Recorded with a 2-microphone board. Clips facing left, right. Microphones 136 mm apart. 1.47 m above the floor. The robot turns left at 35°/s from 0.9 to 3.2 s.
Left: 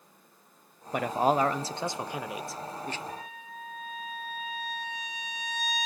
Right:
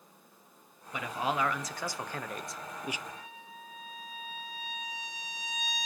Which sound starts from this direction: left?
A trumpet, at 3.1 s.